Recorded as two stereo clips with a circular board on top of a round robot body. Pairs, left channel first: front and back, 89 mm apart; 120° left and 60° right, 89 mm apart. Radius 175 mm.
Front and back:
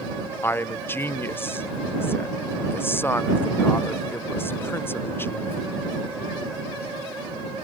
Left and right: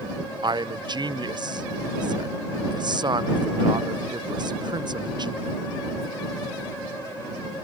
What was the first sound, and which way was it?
A man speaking, 60° right.